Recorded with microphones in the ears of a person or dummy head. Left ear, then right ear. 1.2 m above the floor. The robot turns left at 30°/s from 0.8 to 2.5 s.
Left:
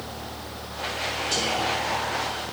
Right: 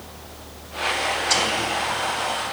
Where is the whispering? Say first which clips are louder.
Right 2 dB; 60° right (ahead or behind), 2.5 m; by 2.2 s 85° right, 2.5 m.